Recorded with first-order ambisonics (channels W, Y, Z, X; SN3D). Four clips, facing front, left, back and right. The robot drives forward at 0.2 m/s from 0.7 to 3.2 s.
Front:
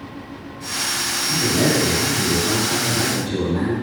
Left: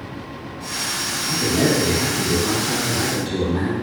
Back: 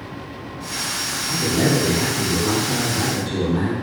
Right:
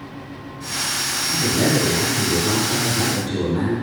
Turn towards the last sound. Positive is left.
turn(degrees=95)